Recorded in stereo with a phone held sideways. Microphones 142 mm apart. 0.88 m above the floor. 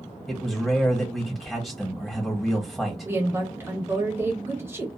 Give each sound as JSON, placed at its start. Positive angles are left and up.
{"t": 0.3, "sound": "a man speaking", "side_deg": 0, "distance_m": 1.4}
{"t": 3.0, "sound": "a woman speaking", "side_deg": -15, "distance_m": 1.1}